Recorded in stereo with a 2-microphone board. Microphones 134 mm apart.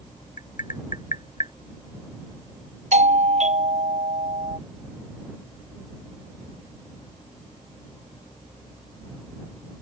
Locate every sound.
0.4 s tapping: 75° left (ahead or behind)
2.9 s a doorbell: 60° right (ahead or behind)